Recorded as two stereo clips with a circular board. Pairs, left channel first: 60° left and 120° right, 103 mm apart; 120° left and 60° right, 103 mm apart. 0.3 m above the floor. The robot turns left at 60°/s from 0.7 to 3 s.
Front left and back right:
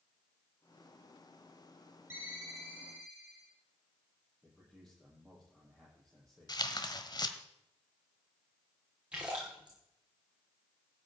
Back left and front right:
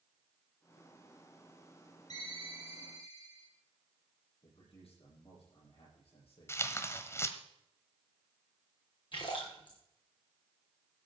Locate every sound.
2.1 s a ringtone: 175° left, 5 m; by 3.5 s 120° left, 5 m
4.4 s a man speaking: 145° left, 9 m
6.5 s tearing paper: 70° left, 1.3 m
9.1 s a splash: 160° left, 5.5 m